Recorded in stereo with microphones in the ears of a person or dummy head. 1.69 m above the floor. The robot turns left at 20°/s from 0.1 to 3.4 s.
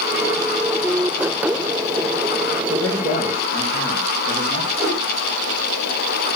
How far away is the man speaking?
About 2.5 m.